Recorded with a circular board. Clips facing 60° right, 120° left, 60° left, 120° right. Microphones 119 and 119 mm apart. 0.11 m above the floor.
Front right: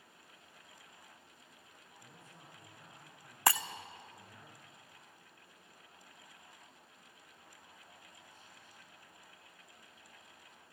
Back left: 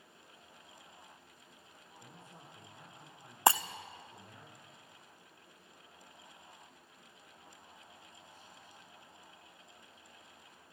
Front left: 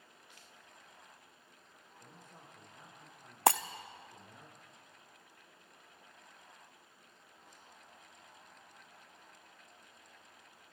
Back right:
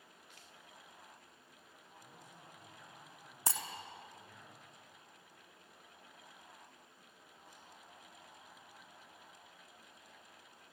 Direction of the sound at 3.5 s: 55° left.